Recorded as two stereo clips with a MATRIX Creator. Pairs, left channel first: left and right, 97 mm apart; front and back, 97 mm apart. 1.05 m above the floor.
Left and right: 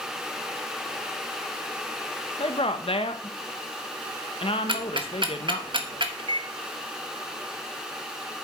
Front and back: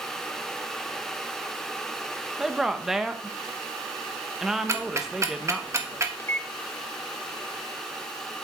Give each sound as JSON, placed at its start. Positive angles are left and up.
{"t": 2.4, "sound": "a woman speaking", "azimuth_deg": 95, "distance_m": 0.9}
{"t": 4.7, "sound": "ticking", "azimuth_deg": -120, "distance_m": 1.2}
{"t": 6.2, "sound": "a microwave", "azimuth_deg": -65, "distance_m": 0.7}